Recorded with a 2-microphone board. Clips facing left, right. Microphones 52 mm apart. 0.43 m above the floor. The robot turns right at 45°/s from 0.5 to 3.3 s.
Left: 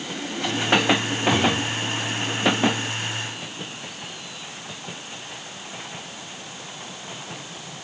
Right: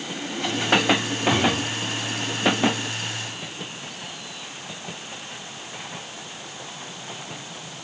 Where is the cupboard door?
Centre (ahead or behind), 2.5 m; by 1.8 s 20° left (ahead or behind), 2.5 m.